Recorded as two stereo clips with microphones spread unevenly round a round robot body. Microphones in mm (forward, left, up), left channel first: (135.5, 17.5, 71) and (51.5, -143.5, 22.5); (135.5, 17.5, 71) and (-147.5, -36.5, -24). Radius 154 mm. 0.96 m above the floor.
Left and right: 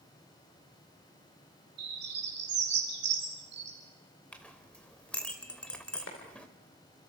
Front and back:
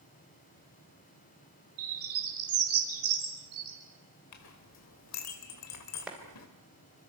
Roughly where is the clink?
Ahead.